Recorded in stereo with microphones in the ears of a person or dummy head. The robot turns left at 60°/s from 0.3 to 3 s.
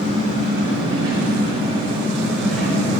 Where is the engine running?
50° right, 2 m; by 3.0 s 145° left, 2 m.